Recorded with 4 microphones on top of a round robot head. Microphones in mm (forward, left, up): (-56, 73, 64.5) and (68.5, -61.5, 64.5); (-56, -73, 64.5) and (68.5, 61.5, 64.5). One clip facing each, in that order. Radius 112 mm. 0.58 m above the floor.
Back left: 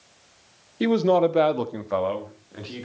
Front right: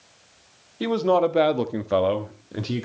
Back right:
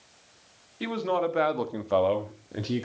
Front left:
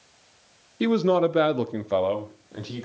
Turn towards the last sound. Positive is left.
turn(degrees=-70)